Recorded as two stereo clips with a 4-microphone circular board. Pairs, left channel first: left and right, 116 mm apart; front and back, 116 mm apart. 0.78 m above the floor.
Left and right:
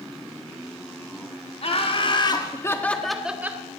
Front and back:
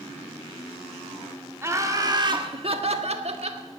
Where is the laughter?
115° left, 2.0 m; by 3.6 s 155° right, 1.6 m.